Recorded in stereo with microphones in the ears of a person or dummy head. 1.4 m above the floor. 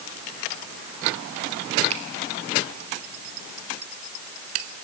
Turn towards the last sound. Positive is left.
turn(degrees=-35)  # may be behind; listen again after turning